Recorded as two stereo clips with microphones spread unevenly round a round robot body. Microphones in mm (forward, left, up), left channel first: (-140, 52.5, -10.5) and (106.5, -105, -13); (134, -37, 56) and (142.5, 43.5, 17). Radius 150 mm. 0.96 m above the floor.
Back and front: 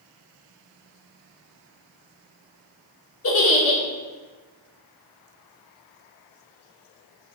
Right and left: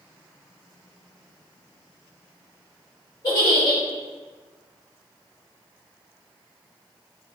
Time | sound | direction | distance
3.2 | a giggle | 170° right | 2 m